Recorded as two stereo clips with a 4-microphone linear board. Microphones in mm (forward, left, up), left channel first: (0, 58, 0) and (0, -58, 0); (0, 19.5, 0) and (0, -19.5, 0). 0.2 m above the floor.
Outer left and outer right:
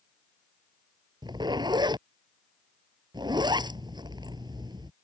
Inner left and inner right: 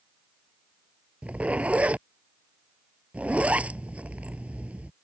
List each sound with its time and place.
1.2 s a zipper: 40° right (ahead or behind)